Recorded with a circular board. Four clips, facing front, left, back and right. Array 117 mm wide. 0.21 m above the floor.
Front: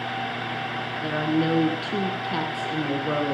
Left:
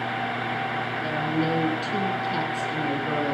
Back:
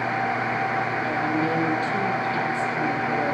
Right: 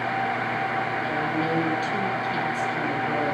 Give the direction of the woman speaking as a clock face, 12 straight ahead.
12 o'clock.